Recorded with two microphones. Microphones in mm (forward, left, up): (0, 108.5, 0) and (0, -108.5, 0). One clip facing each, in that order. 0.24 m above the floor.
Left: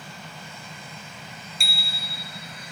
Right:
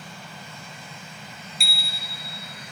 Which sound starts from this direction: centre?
A bicycle bell, at 1.6 s.